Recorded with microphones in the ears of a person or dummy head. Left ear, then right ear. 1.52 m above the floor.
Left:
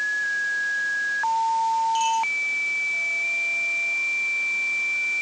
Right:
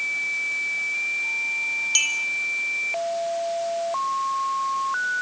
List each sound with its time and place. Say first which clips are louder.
1.9 s a clink: even; 60° right (ahead or behind), 4 m